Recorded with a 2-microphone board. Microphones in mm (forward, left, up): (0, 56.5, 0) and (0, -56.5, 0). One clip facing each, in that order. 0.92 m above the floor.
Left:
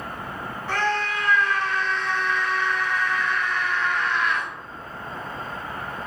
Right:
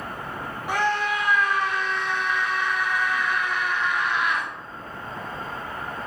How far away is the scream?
About 0.7 m.